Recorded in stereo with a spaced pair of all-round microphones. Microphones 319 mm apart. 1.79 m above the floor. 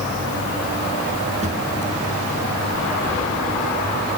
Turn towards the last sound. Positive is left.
turn(degrees=-20)  # may be behind; listen again after turning